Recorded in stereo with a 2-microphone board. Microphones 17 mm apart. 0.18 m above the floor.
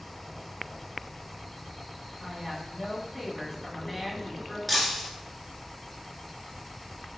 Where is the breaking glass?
Centre (ahead or behind), 1.0 m.